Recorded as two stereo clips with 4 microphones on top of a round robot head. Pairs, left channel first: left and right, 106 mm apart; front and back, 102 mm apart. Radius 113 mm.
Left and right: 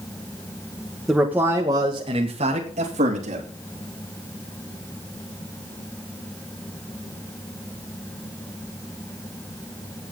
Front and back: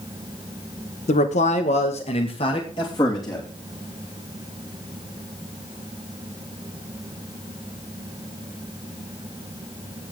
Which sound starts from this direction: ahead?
A man speaking, at 1.1 s.